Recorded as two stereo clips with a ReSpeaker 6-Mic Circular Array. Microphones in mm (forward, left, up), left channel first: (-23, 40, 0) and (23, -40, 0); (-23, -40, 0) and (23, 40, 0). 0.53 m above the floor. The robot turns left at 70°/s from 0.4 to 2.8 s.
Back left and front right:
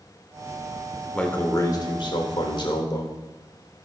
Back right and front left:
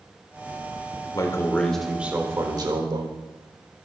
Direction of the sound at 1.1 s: 160° right.